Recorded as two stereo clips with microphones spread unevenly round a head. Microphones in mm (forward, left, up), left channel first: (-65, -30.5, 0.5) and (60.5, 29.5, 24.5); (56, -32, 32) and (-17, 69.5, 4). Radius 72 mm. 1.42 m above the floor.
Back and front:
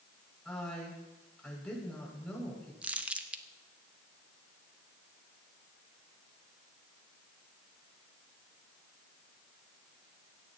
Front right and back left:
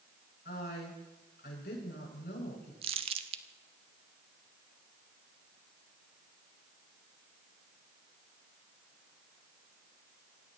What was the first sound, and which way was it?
A woman speaking, 70° right.